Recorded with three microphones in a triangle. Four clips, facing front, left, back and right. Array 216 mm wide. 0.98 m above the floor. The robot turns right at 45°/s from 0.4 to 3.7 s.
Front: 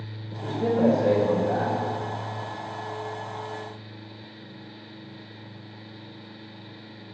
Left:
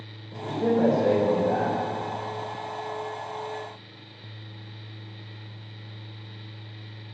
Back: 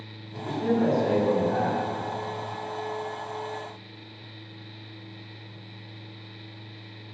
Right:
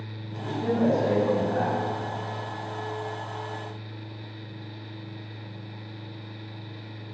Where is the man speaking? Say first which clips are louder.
Left 3 dB, front 1 dB; 20° left, 4.5 m; by 1.8 s 85° left, 4.5 m.